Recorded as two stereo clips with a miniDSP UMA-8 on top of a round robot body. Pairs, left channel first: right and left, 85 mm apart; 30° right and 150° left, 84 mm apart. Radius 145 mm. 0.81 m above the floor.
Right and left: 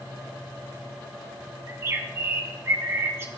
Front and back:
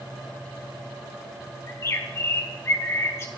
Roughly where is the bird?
Ahead left.